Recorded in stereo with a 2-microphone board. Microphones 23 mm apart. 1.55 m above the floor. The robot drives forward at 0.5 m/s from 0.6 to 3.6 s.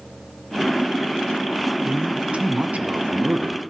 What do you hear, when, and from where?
1.9 s a man speaking: 45° right (ahead or behind), 0.9 m; by 3.6 s 65° right (ahead or behind), 0.6 m